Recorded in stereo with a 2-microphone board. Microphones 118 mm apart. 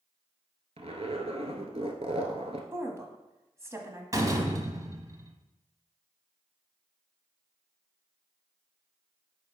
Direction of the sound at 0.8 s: 60° right (ahead or behind).